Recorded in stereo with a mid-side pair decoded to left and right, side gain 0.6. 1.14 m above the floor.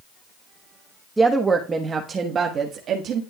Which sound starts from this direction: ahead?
A woman speaking, at 1.2 s.